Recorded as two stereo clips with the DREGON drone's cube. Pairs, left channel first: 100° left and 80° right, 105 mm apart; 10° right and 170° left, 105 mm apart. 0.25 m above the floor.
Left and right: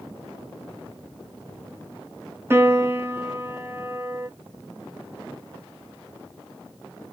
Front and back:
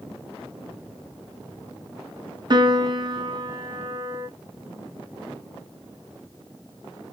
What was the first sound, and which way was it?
A piano, 145° right.